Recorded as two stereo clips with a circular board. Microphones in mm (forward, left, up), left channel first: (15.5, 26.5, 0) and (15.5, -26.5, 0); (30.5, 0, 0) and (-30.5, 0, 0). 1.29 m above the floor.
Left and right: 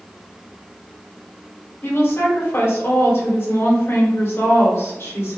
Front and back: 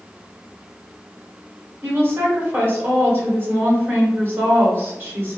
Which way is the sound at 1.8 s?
130° left.